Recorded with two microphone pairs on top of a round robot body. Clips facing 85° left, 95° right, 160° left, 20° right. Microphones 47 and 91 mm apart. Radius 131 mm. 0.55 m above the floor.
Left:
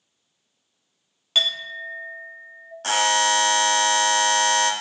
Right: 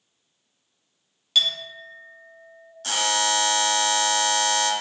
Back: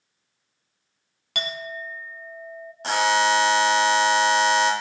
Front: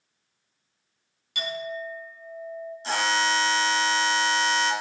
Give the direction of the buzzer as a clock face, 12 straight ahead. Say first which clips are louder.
Left 4 dB, back 5 dB; 8 o'clock.